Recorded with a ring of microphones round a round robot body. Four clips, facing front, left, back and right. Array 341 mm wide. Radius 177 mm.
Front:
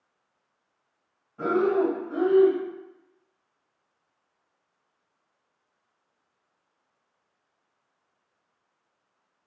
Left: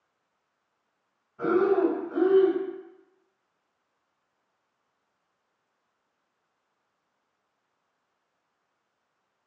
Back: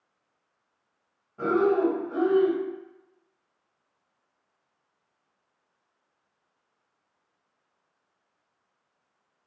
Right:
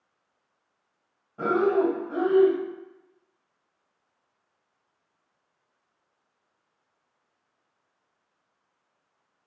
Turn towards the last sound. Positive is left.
turn(degrees=-110)